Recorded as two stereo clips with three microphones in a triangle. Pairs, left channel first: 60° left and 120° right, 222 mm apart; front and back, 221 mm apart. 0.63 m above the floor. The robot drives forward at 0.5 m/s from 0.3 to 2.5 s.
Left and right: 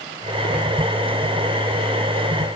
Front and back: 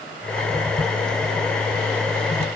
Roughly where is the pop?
No pop in this recording.